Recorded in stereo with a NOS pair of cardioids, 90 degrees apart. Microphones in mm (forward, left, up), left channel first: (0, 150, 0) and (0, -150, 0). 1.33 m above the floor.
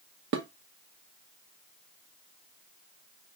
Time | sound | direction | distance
0.3 | dishes clattering | 65° right | 1.0 m